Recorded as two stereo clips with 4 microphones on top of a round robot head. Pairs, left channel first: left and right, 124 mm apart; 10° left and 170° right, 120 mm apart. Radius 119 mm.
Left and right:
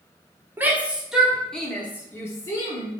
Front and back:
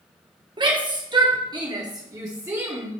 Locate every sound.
0.6 s a shout: 155° right, 1.4 m; by 2.9 s 125° left, 1.5 m